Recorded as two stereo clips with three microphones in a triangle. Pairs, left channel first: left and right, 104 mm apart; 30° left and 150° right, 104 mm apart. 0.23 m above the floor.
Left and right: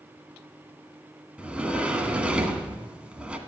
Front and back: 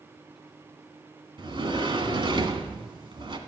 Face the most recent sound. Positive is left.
turn(degrees=-165)